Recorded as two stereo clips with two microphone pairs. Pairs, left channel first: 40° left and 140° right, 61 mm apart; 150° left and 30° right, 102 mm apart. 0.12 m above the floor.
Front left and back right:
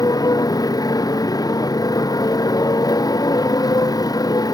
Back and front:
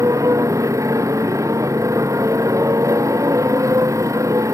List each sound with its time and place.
0.0 s a motorcycle: 30° left